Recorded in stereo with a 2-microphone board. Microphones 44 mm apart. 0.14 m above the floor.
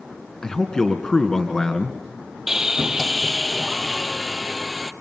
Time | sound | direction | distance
0.4 | a man speaking | 15° left (ahead or behind) | 1.8 m
2.5 | sawing | 10° right (ahead or behind) | 0.7 m